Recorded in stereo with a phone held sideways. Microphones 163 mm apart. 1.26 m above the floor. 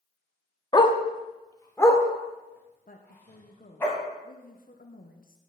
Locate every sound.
0.7 s a dog barking: 25° left (ahead or behind), 0.8 m; by 3.9 s 10° left (ahead or behind), 3.5 m
2.9 s a woman speaking: 60° left (ahead or behind), 1.0 m